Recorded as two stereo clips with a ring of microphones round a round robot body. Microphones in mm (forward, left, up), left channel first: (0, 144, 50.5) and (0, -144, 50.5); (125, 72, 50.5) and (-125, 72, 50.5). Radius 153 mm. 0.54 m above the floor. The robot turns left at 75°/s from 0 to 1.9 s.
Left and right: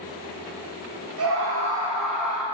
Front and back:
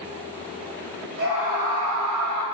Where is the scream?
125° right, 3.5 m; by 2.4 s 175° right, 3.5 m.